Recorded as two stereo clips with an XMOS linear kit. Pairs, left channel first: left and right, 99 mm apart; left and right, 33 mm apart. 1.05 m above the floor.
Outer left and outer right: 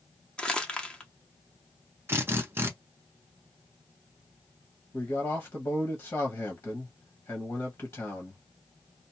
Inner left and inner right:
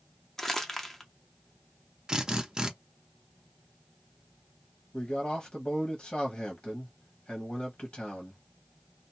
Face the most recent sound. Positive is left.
turn(degrees=35)  # may be behind; listen again after turning